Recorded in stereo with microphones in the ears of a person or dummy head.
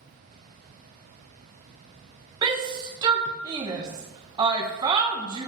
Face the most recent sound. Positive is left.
turn(degrees=-20)  # may be behind; listen again after turning